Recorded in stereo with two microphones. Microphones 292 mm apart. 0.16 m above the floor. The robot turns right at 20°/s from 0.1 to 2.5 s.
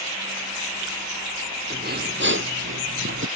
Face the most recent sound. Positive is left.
turn(degrees=-45)  # may be behind; listen again after turning